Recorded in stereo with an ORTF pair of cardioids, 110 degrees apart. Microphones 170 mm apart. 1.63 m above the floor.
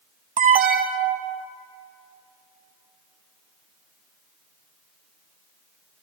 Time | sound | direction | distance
0.4 | an alarm | 55° right | 0.9 m